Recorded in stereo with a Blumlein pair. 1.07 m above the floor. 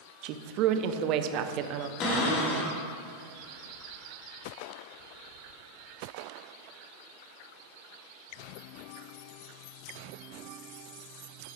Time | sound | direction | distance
0.2 | a woman speaking | 40° right | 0.6 m
2.0 | a cupboard door | 35° left | 2 m